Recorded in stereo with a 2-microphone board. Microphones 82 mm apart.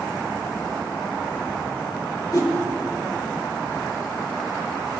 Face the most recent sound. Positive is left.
turn(degrees=50)  # may be behind; listen again after turning